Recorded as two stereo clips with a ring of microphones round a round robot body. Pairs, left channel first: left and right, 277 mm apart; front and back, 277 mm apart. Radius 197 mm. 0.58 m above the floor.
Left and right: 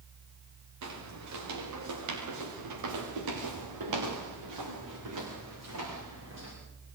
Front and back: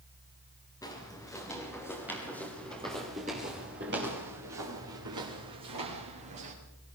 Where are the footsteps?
85° right, 7.5 m; by 6.5 s 150° right, 6 m.